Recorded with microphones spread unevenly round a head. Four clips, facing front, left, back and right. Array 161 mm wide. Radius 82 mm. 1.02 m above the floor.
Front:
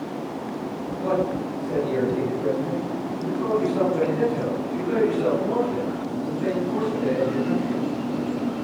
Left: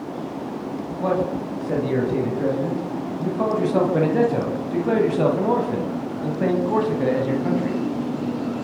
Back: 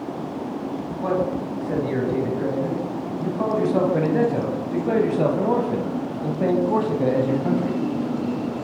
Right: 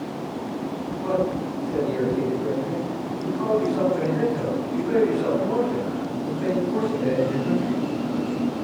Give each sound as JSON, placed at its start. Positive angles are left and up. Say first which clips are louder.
{"t": 1.0, "sound": "a man speaking", "louder": "left 1 dB, even", "azimuth_deg": 85, "distance_m": 9.5}